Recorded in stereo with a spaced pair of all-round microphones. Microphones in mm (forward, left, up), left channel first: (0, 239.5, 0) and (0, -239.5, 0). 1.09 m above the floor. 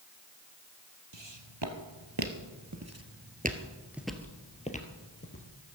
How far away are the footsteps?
About 2 m.